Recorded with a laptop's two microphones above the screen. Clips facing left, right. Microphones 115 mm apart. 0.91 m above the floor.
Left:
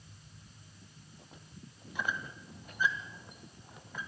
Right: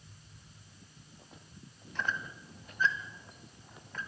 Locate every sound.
1.9 s a squeak: 10° left (ahead or behind), 2.0 m